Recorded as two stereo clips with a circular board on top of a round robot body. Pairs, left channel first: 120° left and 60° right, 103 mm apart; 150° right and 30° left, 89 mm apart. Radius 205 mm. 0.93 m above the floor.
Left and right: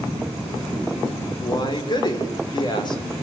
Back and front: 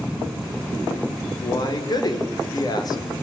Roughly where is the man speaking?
Behind.